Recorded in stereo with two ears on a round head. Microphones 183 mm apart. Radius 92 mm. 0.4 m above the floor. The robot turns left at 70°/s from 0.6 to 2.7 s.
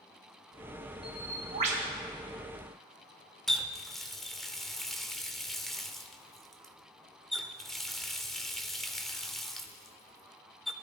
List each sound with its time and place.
1.0 s a bird: straight ahead, 1.9 m; by 1.9 s 60° right, 1.9 m
3.5 s a running tap: centre (ahead or behind), 0.7 m